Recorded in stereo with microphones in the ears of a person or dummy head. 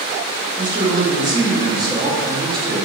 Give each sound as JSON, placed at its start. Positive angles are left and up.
{"t": 0.6, "sound": "a man speaking", "side_deg": -20, "distance_m": 0.7}